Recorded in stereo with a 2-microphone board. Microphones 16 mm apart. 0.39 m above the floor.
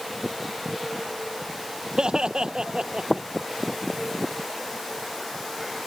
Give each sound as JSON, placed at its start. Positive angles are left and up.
{"t": 2.0, "sound": "laughter", "side_deg": -65}